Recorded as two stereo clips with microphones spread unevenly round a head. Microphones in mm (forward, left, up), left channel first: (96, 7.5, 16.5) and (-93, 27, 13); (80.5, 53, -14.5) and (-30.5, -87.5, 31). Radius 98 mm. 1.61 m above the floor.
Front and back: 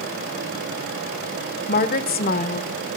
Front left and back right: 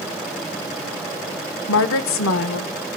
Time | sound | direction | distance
1.7 | a woman speaking | 40° left | 1.5 m